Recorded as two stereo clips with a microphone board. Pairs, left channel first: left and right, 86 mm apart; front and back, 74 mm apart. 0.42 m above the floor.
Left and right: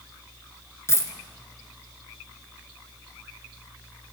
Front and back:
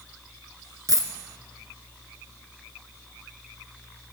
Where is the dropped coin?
145° left, 1.0 m.